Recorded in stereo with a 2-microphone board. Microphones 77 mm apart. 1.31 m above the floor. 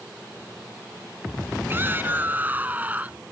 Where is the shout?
25° right (ahead or behind); by 3.2 s 20° right (ahead or behind).